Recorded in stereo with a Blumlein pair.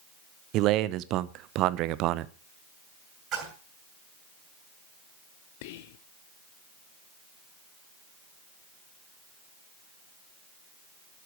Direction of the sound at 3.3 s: 30° right.